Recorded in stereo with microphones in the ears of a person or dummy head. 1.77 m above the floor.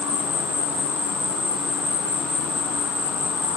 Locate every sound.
0.0 s an insect: 15° right (ahead or behind), 4.5 m